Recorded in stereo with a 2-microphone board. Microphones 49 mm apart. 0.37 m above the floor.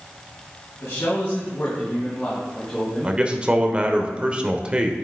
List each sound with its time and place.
0.8 s a man speaking: 60° left (ahead or behind), 3.5 m; by 3.2 s 10° left (ahead or behind), 4 m
3.0 s a man speaking: 20° right (ahead or behind), 0.9 m